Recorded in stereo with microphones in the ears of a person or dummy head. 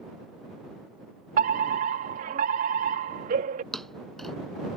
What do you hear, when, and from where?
1.4 s a fire alarm: 40° right (ahead or behind)
3.7 s a thud: centre (ahead or behind)